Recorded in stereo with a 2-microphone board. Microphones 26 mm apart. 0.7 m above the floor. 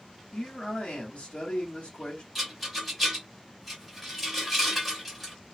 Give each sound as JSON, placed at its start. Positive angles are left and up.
{"t": 0.3, "sound": "a man speaking", "side_deg": 60, "distance_m": 1.6}
{"t": 2.4, "sound": "a rattle", "side_deg": 0, "distance_m": 1.9}